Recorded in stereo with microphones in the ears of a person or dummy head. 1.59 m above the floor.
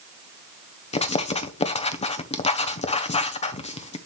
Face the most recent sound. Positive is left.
turn(degrees=30)  # may be behind; listen again after turning